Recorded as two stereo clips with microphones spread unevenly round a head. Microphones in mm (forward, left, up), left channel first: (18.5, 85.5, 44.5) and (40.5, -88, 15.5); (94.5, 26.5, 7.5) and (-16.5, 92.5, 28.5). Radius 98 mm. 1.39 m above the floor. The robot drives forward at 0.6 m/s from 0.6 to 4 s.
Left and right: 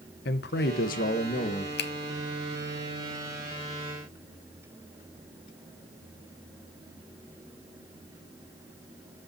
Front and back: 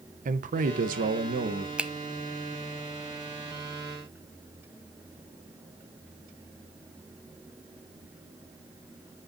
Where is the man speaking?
135° left, 0.8 m; by 1.7 s 155° left, 1.3 m.